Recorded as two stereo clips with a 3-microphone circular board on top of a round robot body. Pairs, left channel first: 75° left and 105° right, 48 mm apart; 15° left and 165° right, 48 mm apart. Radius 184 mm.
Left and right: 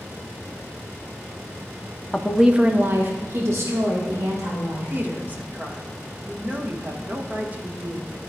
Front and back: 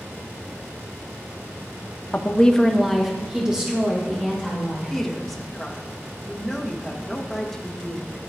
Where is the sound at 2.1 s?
5° left, 0.9 m; by 4.9 s 100° right, 3 m.